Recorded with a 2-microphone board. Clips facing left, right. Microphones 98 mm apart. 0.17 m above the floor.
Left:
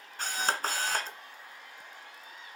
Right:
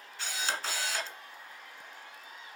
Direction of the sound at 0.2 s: 45° left (ahead or behind).